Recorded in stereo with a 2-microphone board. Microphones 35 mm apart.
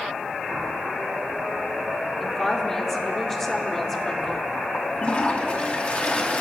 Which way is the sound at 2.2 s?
10° left (ahead or behind).